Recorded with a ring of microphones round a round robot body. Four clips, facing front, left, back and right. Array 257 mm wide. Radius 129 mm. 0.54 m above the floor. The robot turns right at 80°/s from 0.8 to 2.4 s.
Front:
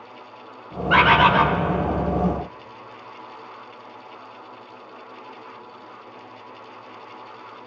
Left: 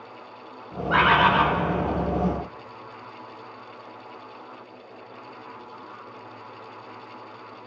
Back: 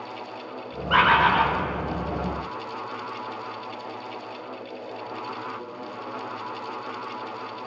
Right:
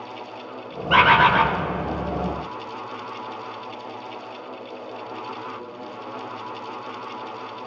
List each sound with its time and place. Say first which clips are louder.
0.9 s a bird: right 3 dB, front 3 dB; 60° right, 0.7 m; by 1.5 s 10° right, 0.7 m